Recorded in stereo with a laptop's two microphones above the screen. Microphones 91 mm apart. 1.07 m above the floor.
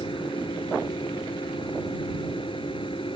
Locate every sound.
0.0 s a machine running: 85° left